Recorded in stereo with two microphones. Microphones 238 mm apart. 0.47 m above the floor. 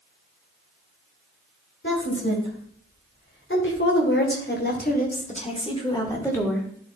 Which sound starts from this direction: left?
A woman speaking, at 1.8 s.